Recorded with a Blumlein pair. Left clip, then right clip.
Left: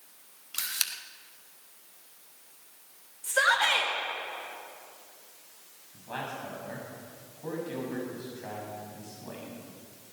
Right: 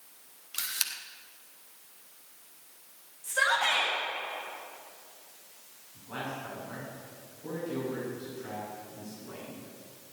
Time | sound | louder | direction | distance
0.5 | a camera shutter | left 1 dB | 5° left | 1.0 m
3.2 | a shout | left 2 dB | 65° left | 4 m
5.9 | a man speaking | left 1 dB | 60° left | 6.5 m